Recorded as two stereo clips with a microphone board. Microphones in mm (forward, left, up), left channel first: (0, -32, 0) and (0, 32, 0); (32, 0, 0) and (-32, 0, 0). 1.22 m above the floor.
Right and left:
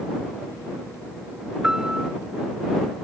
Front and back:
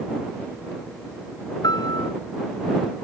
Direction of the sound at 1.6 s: 10° left.